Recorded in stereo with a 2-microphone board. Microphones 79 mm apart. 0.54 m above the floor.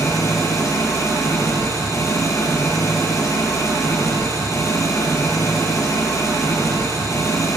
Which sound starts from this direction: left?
An engine running, at 0.0 s.